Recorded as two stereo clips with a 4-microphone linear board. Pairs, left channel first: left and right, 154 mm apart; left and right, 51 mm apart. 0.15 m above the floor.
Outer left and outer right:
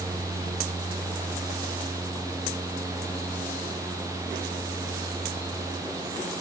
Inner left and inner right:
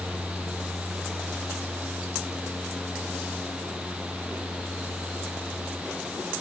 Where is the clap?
No clap in this recording.